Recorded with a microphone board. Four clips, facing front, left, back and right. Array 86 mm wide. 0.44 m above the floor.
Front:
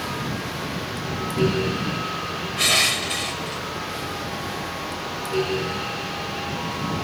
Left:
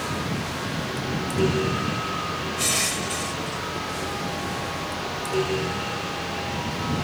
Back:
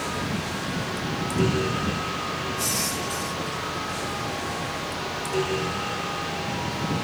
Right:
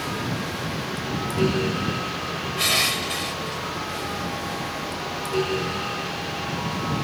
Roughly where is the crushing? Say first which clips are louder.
Right 2 dB, front 4 dB; ahead.